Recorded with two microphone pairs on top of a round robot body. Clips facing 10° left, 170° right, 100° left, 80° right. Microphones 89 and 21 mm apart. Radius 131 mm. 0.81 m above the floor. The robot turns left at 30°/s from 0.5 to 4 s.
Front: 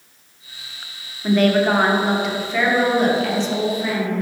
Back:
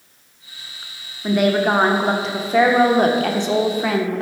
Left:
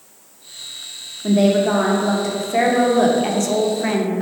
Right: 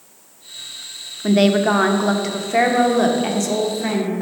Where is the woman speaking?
95° right, 0.8 m; by 4.2 s 175° right, 0.8 m.